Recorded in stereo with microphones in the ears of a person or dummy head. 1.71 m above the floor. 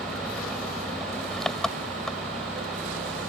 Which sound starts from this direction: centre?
An engine running, at 0.0 s.